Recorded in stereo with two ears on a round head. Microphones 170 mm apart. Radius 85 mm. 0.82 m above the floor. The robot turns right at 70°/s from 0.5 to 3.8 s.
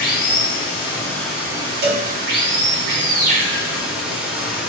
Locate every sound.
0.0 s running water: 120° left, 0.9 m; by 4.7 s 5° right, 0.9 m
1.8 s a cowbell: 55° right (ahead or behind), 0.7 m; by 2.1 s 35° right (ahead or behind), 0.7 m